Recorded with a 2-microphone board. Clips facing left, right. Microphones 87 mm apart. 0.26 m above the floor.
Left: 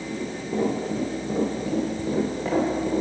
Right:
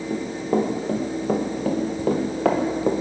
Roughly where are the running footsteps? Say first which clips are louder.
Right 6 dB; right.